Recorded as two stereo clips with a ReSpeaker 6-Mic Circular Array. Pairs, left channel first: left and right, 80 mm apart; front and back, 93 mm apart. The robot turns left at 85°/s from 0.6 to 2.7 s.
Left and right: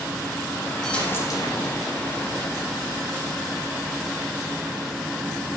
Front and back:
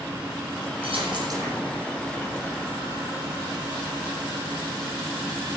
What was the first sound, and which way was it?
A dropped coin, 175° left.